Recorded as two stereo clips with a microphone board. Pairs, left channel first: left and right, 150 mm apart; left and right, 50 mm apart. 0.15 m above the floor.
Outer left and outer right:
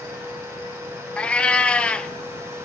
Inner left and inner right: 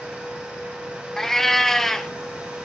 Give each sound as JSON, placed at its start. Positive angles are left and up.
{"t": 1.2, "sound": "a cat meowing", "side_deg": 5, "distance_m": 0.7}